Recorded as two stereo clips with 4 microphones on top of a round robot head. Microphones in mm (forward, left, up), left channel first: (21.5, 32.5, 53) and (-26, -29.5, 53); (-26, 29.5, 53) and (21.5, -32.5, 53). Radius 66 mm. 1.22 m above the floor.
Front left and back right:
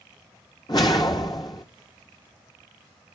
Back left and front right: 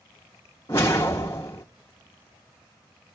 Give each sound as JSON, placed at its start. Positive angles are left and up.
{"t": 0.7, "sound": "a whoosh", "azimuth_deg": 80, "distance_m": 0.6}